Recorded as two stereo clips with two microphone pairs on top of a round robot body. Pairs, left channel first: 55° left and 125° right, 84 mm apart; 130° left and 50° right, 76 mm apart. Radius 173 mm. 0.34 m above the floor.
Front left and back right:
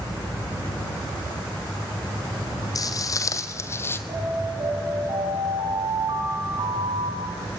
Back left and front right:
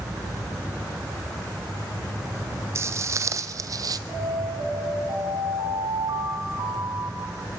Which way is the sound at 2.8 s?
5° left.